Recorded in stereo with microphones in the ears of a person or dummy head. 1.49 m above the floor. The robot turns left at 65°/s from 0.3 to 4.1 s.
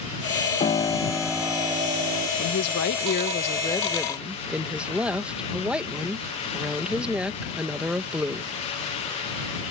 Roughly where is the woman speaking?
Left.